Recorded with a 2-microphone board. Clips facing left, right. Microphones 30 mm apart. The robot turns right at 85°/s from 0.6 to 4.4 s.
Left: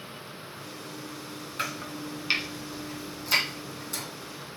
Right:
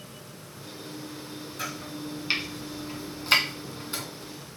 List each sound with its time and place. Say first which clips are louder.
1.6 s chopping: left 2 dB; 45° left (ahead or behind), 1.8 m; by 4.0 s 25° right (ahead or behind), 1.8 m